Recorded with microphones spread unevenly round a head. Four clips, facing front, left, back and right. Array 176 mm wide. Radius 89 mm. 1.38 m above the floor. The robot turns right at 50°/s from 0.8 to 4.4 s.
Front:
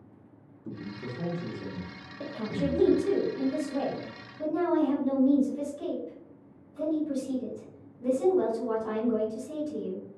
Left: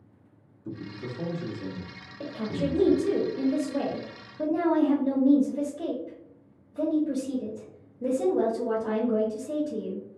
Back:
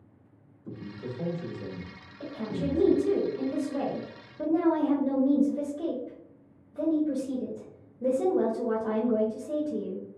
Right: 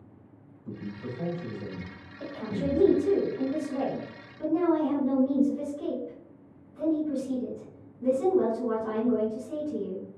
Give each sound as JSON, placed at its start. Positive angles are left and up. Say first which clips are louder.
{"t": 0.7, "sound": "a man speaking", "louder": "left 1 dB, even", "azimuth_deg": 30, "distance_m": 0.9}
{"t": 2.2, "sound": "a woman speaking", "louder": "left 2 dB, front 1 dB", "azimuth_deg": 25, "distance_m": 1.0}